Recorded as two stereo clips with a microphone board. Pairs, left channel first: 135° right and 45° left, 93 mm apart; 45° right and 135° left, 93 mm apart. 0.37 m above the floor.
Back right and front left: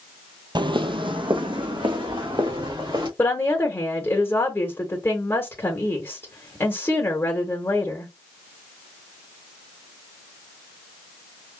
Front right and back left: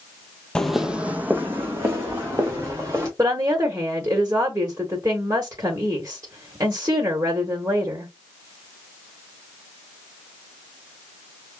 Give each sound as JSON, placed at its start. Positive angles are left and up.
{"t": 0.6, "sound": "footsteps", "azimuth_deg": 35, "distance_m": 0.5}
{"t": 3.2, "sound": "a woman speaking", "azimuth_deg": 170, "distance_m": 1.1}